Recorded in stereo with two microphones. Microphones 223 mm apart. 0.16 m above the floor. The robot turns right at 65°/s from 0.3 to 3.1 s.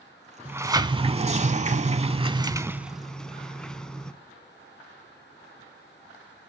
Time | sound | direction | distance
0.5 | a sliding door | 165° right | 0.5 m